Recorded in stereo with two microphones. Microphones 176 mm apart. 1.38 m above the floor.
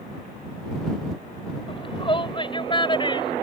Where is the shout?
30° left (ahead or behind).